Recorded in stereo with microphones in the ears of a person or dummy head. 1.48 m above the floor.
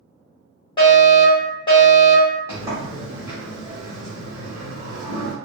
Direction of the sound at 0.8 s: 25° left (ahead or behind).